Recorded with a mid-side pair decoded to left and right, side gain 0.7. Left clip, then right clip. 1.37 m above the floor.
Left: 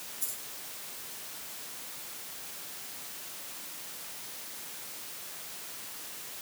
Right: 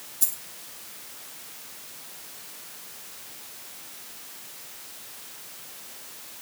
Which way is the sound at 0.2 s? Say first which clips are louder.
Right 10 dB; 50° right.